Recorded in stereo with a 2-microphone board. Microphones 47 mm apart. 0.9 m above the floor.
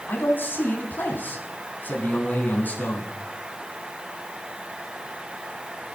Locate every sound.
0.1 s a man speaking: 40° left (ahead or behind), 8.5 m; by 3.1 s 35° left (ahead or behind), 9.5 m